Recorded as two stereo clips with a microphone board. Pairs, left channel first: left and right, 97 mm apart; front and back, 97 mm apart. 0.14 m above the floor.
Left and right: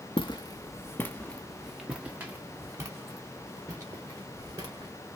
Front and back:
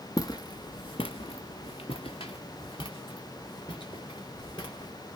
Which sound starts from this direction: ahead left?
Footsteps, at 0.2 s.